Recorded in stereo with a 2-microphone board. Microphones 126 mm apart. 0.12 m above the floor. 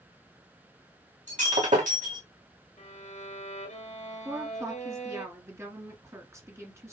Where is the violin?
65° left (ahead or behind), 2.5 m.